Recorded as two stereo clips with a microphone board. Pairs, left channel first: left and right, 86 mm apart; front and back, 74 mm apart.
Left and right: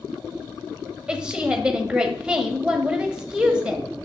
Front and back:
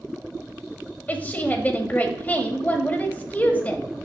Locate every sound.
1.1 s a woman speaking: 25° right, 1.2 m